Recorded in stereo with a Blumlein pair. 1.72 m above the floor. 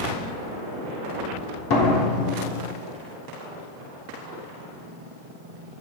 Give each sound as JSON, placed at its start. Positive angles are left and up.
{"t": 1.7, "sound": "a door slam", "azimuth_deg": 45, "distance_m": 3.0}